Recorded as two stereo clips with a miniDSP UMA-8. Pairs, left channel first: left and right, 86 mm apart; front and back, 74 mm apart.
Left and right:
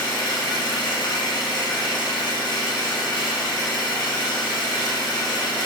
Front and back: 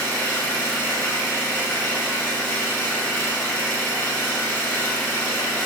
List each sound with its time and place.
0.0 s an engine running: 65° left, 1.0 m